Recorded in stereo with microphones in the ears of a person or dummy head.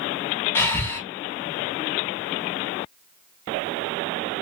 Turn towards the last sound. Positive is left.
turn(degrees=20)  # may be behind; listen again after turning